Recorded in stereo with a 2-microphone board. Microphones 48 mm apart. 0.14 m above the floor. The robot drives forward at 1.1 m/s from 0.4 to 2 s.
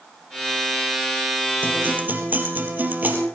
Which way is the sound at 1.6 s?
45° right (ahead or behind).